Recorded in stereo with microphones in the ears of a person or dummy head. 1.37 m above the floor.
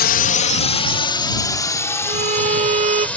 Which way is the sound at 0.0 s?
45° left (ahead or behind).